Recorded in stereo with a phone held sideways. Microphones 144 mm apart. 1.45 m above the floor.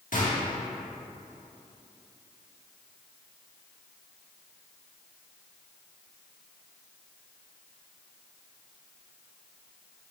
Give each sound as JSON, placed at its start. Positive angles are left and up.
{"t": 0.1, "sound": "a gunshot", "side_deg": 65, "distance_m": 1.6}